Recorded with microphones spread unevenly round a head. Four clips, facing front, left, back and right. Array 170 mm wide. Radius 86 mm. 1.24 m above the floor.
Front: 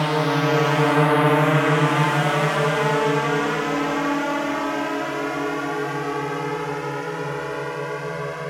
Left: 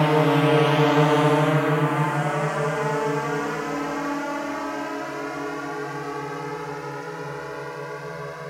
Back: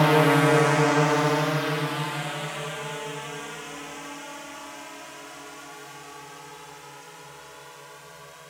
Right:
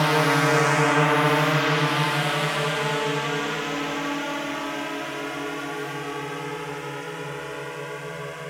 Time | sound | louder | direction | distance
0.0 | a drone | left 2 dB, back 2 dB | 135° left | ?